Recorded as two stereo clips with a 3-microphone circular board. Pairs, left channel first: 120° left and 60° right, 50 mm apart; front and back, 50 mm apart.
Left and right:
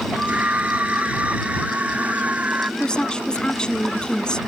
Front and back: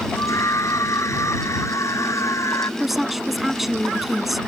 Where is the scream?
Straight ahead.